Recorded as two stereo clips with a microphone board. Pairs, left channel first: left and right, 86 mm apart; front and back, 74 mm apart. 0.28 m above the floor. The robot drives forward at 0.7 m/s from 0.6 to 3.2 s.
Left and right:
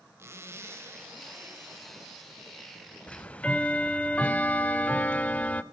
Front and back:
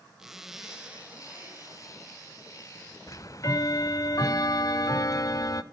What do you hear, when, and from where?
0.2 s a zipper: 105° right, 1.5 m; by 2.1 s 150° right, 1.9 m
3.1 s ticking: 15° left, 0.7 m; by 5.6 s 20° left, 0.6 m